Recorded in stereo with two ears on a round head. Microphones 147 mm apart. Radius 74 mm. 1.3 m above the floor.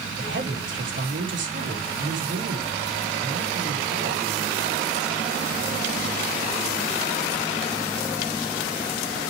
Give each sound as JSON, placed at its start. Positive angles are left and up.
{"t": 0.2, "sound": "a woman speaking", "side_deg": -75, "distance_m": 4.0}